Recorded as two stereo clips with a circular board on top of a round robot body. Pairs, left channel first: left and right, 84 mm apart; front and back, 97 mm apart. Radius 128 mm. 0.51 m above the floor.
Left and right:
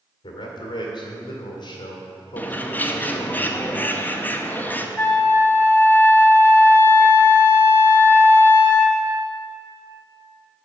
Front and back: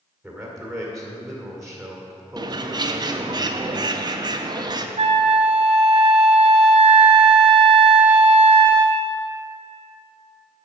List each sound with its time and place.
0.2 s a man speaking: 90° left, 2 m
2.4 s a bird: 155° left, 0.9 m
5.0 s a flute: 155° left, 0.8 m